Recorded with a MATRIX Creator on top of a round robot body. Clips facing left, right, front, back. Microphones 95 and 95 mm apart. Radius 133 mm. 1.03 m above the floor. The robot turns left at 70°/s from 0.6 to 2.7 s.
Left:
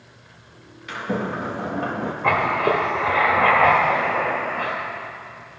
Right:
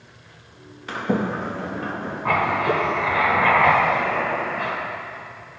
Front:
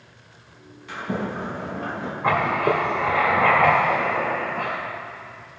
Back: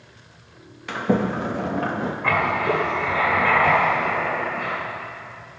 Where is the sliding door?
145° right, 0.7 m; by 2.1 s 125° left, 0.7 m.